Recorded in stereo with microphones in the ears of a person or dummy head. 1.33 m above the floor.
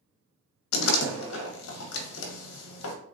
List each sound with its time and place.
0.7 s a door slam: 80° left, 0.8 m